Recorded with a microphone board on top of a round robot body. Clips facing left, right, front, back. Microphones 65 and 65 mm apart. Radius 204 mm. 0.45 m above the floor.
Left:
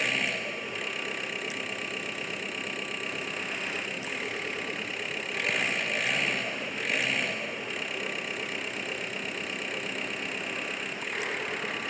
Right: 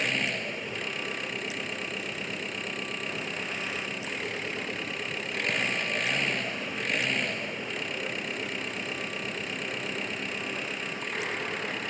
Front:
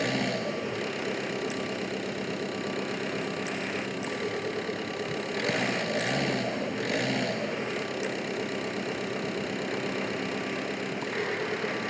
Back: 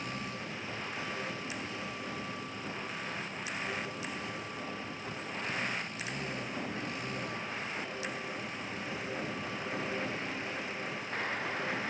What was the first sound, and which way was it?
An engine running, straight ahead.